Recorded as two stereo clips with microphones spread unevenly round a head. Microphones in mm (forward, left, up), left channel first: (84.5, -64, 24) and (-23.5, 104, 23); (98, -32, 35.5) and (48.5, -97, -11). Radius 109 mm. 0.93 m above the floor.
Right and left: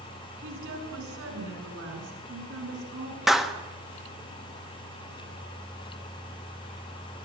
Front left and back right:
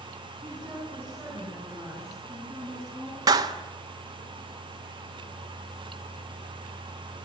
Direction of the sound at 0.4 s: 160° left.